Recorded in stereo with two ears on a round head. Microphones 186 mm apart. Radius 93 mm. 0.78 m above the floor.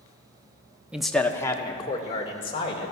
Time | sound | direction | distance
0.9 | a man speaking | 5° right (ahead or behind) | 0.8 m